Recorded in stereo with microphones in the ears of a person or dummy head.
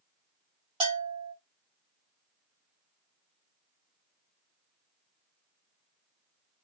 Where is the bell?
25° right (ahead or behind), 1.5 m.